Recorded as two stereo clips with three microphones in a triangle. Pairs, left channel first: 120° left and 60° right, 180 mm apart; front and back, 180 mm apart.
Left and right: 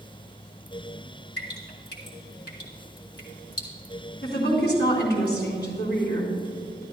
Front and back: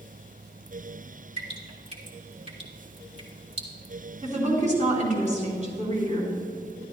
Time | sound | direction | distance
1.4 | dripping | 130° left | 3 m
4.2 | a woman speaking | 135° left | 3 m